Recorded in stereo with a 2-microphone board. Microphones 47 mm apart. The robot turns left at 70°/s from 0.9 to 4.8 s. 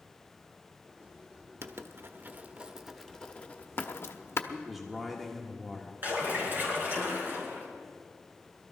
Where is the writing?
65° right (ahead or behind), 0.8 m; by 4.4 s 60° left (ahead or behind), 0.8 m.